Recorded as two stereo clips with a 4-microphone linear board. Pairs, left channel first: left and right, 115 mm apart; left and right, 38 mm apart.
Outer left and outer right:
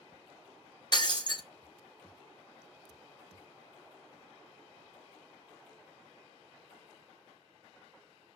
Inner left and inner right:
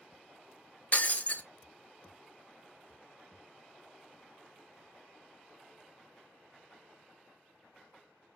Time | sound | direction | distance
0.9 | breaking glass | 45° left (ahead or behind) | 0.6 m